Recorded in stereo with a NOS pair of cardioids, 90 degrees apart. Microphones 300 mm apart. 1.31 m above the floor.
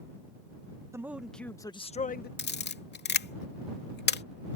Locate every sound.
0.9 s a man speaking: 10° right; by 2.3 s 35° left
2.4 s a camera shutter: 35° left